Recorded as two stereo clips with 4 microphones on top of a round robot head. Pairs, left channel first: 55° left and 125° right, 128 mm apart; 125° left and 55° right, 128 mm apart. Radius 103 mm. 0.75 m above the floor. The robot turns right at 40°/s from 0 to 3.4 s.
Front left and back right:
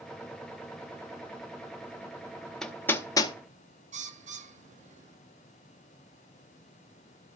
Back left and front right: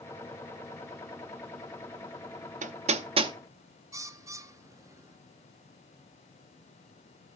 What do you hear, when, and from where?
2.6 s hammering: 30° right, 0.9 m; by 3.3 s 5° right, 0.9 m
3.9 s a bird: 120° right, 1.1 m